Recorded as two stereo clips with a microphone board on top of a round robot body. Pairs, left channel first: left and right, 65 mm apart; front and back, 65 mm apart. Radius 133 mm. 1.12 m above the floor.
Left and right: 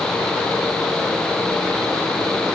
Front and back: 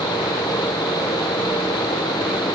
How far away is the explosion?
I don't hear an explosion.